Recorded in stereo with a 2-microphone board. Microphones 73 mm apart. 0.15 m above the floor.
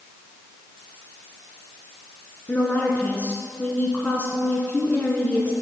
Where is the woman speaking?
20° left (ahead or behind), 1.6 m.